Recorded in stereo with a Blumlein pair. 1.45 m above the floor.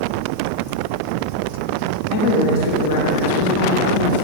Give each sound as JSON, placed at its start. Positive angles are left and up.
{"t": 2.1, "sound": "a woman speaking", "azimuth_deg": 45, "distance_m": 1.8}